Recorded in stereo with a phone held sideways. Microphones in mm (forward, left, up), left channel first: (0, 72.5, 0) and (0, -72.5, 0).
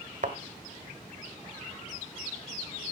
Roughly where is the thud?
Right.